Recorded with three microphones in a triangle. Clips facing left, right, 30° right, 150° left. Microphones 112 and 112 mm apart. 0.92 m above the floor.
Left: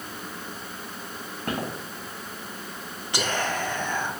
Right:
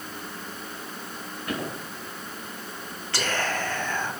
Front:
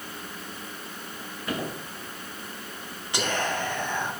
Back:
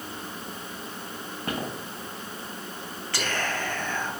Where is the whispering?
30° left, 0.9 m.